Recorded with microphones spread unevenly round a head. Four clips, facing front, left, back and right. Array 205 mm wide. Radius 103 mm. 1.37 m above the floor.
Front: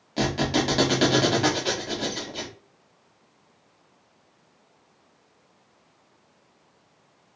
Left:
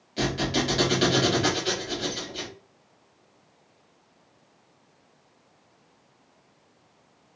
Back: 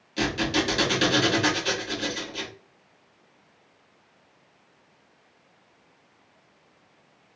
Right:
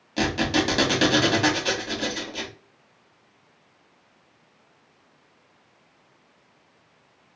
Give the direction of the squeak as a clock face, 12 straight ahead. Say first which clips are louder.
Right 3 dB, front 2 dB; 1 o'clock.